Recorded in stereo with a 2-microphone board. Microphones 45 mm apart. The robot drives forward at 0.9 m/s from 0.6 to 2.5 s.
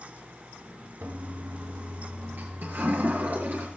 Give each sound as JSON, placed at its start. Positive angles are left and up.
{"t": 1.0, "sound": "a toilet flushing", "side_deg": -70, "distance_m": 2.0}